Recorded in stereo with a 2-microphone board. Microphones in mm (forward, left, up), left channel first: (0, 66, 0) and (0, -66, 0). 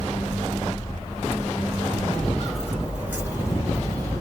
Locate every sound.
2.1 s footsteps: 5° left (ahead or behind), 1.9 m; by 4.2 s 30° right (ahead or behind), 2 m